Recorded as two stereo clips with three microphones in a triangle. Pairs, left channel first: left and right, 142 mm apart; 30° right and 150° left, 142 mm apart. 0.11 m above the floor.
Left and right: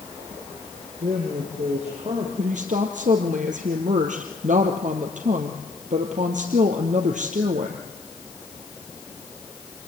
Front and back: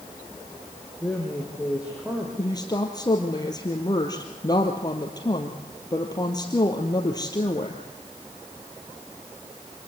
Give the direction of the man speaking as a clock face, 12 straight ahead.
4 o'clock.